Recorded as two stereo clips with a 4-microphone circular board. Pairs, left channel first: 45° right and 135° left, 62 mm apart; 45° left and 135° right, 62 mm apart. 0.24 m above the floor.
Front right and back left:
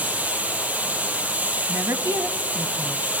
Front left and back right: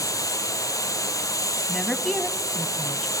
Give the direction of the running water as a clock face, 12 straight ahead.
10 o'clock.